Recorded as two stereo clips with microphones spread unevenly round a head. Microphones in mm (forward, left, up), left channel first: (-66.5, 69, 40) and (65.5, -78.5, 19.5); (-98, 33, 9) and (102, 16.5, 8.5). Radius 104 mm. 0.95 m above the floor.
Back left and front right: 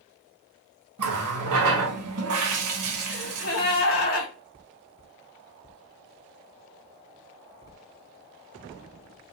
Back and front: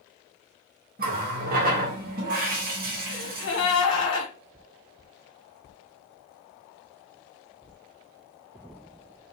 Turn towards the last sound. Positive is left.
turn(degrees=170)